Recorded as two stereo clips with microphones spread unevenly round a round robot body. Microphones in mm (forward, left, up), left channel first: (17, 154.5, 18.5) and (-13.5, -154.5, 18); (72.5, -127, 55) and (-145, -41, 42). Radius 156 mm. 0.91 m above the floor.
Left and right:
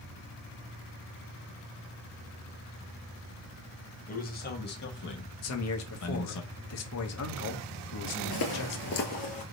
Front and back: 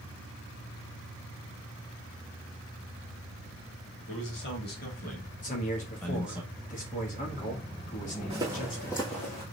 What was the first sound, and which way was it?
A man speaking, 20° left.